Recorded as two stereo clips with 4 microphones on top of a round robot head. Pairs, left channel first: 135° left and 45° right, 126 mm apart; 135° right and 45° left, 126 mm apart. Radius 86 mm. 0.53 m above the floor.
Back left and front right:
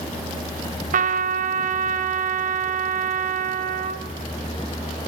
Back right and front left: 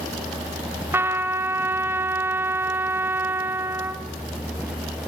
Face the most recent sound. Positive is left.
turn(degrees=-30)